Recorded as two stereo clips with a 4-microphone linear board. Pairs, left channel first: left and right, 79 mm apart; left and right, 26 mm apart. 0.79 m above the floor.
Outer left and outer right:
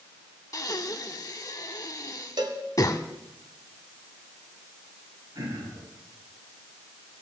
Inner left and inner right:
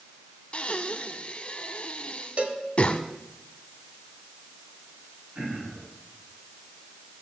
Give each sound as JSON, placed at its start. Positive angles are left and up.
{"t": 0.5, "sound": "breathing", "side_deg": 50, "distance_m": 1.0}
{"t": 2.4, "sound": "a cowbell", "side_deg": -70, "distance_m": 1.6}
{"t": 5.3, "sound": "throat clearing", "side_deg": -50, "distance_m": 7.0}